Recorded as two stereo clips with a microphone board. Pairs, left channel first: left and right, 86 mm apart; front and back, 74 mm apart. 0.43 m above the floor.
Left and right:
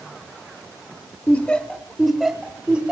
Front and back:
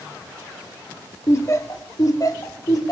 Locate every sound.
1.3 s laughter: 25° left, 1.8 m; by 2.9 s 20° right, 2.5 m